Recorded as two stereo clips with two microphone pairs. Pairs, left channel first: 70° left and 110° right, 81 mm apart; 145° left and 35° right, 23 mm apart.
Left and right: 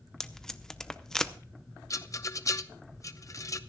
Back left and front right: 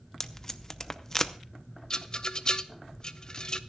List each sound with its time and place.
0.2 s tape being pulled: 145° left, 0.6 m
1.9 s a rattle: 100° left, 0.6 m